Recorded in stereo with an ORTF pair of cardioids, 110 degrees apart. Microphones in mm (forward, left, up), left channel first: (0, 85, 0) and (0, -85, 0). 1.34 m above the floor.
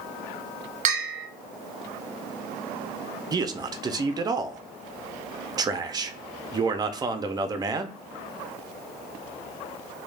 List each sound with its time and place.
0.8 s a bell: 50° right, 0.6 m
3.3 s a man speaking: 25° right, 0.5 m